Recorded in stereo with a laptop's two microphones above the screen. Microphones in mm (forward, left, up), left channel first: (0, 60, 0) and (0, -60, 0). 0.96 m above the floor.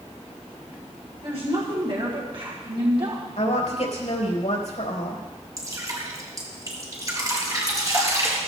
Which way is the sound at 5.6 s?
30° right (ahead or behind).